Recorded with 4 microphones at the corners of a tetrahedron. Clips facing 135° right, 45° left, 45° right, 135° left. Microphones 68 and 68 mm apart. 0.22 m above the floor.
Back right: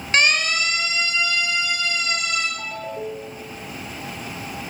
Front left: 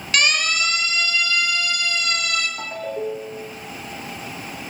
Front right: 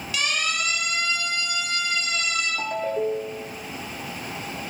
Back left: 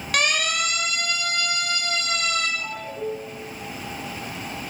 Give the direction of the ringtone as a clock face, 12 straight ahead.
1 o'clock.